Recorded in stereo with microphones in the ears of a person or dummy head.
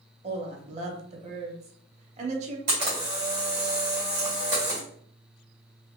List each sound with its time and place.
0.2 s a woman speaking: 40° right (ahead or behind), 1.0 m
2.7 s a camera shutter: 20° right (ahead or behind), 1.8 m